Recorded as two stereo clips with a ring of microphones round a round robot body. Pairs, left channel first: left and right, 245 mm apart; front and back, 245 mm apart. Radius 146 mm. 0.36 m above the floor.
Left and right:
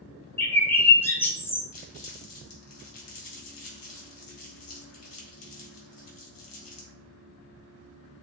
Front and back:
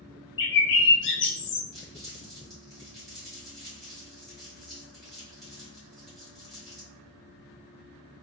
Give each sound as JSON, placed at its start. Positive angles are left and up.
{"t": 0.4, "sound": "a bird", "azimuth_deg": 10, "distance_m": 0.6}
{"t": 1.7, "sound": "crumpling", "azimuth_deg": 90, "distance_m": 1.9}